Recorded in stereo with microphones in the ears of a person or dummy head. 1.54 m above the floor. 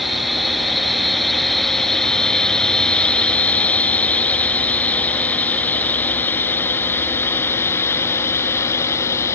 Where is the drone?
5° left (ahead or behind); by 9.4 s 20° left (ahead or behind).